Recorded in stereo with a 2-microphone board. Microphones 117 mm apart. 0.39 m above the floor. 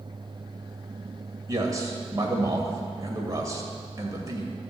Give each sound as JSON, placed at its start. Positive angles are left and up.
{"t": 1.5, "sound": "a man speaking", "side_deg": -30, "distance_m": 2.0}